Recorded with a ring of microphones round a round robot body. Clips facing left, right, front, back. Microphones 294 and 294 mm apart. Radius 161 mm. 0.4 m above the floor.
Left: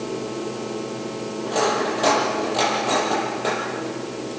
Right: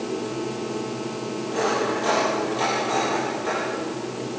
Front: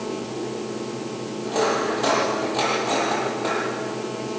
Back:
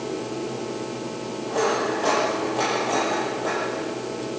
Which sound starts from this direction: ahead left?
Cutlery clinking, at 1.4 s.